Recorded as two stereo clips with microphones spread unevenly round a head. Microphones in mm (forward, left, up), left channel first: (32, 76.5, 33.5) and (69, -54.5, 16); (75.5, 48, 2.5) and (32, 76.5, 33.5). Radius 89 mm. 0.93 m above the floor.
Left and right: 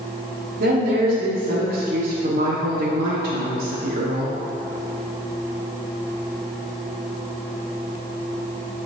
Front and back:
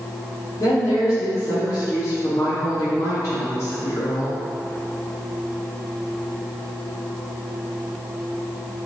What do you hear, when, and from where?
0.6 s a woman speaking: 65° right, 1.6 m